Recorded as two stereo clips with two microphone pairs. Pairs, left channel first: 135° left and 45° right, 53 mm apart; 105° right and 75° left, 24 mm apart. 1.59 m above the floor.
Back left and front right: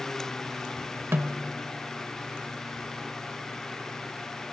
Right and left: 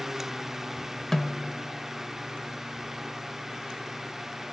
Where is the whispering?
I don't hear whispering.